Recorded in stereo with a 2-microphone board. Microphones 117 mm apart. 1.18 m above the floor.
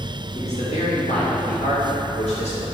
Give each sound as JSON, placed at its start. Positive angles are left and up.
{"t": 0.3, "sound": "a man speaking", "side_deg": 70, "distance_m": 2.0}